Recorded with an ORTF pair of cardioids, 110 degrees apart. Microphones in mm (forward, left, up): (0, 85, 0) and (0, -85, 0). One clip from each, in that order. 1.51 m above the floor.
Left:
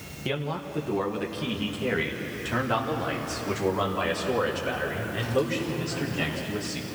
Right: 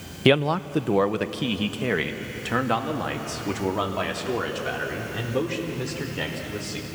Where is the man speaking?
65° right, 0.6 m; by 6.9 s 30° right, 5.5 m.